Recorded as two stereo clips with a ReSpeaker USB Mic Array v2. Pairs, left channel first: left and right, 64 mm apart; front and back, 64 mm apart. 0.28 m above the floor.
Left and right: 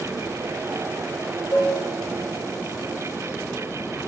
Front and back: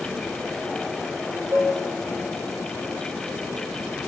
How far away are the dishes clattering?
About 5.5 m.